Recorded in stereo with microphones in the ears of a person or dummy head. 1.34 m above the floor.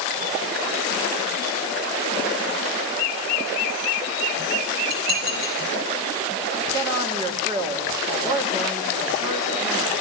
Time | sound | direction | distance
4.9 | dishes clattering | 80° right | 8.5 m
6.7 | a woman speaking | 30° right (ahead or behind) | 3.5 m